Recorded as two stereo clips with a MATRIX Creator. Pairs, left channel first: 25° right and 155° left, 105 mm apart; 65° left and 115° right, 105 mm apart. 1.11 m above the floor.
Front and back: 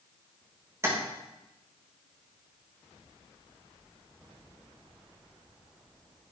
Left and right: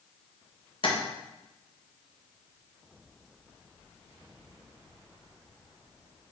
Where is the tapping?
95° left, 1.6 m.